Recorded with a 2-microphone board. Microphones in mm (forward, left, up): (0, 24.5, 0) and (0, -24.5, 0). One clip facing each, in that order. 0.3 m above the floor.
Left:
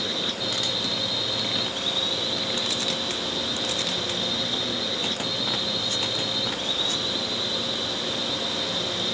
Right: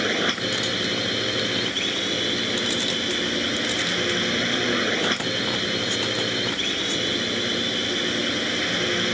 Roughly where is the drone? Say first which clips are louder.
Right 6 dB; right.